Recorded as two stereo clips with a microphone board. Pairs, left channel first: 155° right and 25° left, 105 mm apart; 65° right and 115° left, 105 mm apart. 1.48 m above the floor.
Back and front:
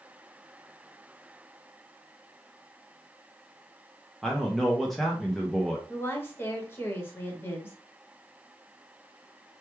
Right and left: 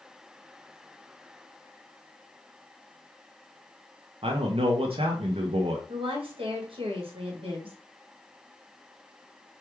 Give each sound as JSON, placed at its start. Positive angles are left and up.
{"t": 4.2, "sound": "a man speaking", "azimuth_deg": 115, "distance_m": 0.6}
{"t": 5.9, "sound": "a woman speaking", "azimuth_deg": 135, "distance_m": 1.1}